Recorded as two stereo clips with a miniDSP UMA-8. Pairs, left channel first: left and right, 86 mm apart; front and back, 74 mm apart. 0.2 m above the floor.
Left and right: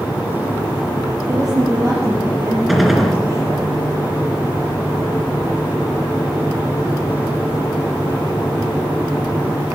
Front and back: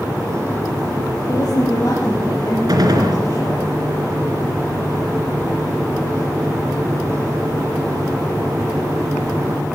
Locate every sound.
1.3 s a woman speaking: 40° right, 5 m
2.7 s a gunshot: straight behind, 3 m